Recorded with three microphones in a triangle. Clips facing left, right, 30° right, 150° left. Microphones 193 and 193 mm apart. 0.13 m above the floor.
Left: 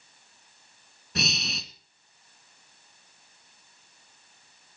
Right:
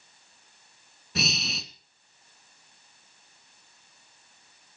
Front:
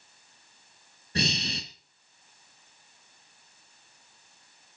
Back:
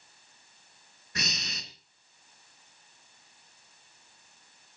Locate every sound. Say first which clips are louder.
1.1 s breathing: right 1 dB, front 9 dB; straight ahead, 1.6 m